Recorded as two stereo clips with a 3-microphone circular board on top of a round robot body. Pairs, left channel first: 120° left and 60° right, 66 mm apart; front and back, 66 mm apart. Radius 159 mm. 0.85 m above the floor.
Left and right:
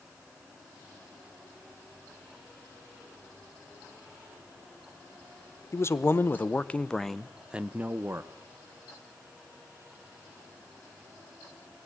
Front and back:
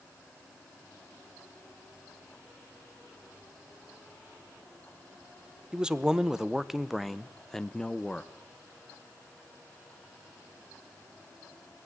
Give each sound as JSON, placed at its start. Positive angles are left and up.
{"t": 5.7, "sound": "a man speaking", "azimuth_deg": 110, "distance_m": 1.2}